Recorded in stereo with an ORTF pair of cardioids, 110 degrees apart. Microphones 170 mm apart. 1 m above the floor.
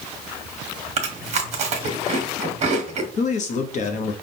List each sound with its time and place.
1.0 s chewing: 40° right, 1.4 m
3.2 s a man speaking: 45° left, 1.0 m